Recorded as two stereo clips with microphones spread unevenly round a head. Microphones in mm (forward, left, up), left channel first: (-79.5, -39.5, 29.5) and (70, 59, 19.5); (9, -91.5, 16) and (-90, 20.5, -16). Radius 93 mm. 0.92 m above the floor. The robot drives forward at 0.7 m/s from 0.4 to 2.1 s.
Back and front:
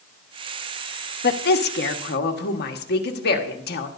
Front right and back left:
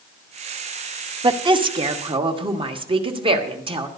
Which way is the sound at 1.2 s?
175° right.